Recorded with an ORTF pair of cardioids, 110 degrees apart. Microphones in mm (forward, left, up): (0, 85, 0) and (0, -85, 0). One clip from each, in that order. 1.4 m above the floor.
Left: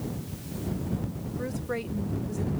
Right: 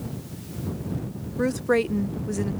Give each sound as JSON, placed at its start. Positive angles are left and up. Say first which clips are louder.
{"t": 1.4, "sound": "a woman speaking", "louder": "right 11 dB", "azimuth_deg": -50}